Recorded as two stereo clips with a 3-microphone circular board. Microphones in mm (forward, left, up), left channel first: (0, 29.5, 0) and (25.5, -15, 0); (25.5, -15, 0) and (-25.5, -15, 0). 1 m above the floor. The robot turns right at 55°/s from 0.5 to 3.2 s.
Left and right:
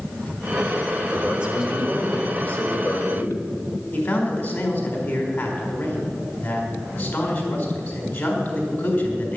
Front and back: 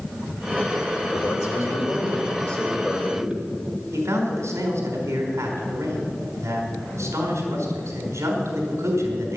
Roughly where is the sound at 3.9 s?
Behind.